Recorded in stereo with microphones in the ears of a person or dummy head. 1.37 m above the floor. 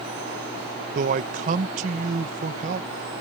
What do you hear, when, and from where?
0.9 s a man speaking: 45° right (ahead or behind)